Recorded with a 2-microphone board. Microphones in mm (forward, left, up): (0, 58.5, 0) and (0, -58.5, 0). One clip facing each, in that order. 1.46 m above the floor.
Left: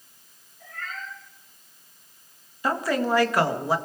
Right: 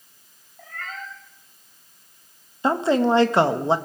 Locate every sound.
0.6 s a cat meowing: 75° right (ahead or behind), 5 m
2.6 s a woman speaking: 25° right (ahead or behind), 1.5 m